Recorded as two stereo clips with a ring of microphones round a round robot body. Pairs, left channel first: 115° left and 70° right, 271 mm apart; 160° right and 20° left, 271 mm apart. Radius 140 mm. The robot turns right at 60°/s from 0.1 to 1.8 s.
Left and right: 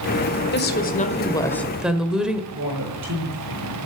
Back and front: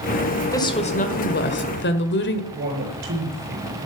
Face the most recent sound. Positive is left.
turn(degrees=-25)